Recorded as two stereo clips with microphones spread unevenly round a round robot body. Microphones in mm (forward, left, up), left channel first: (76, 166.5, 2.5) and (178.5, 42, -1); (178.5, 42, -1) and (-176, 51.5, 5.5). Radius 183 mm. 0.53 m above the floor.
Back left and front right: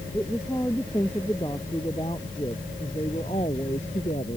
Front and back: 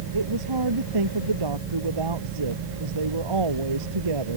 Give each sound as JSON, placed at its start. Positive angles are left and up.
{"t": 0.1, "sound": "a woman speaking", "azimuth_deg": -145}